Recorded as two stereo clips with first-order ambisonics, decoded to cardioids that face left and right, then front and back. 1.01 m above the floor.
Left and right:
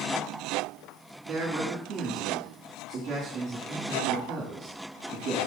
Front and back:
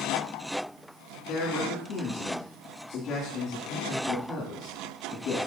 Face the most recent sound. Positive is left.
turn(degrees=-35)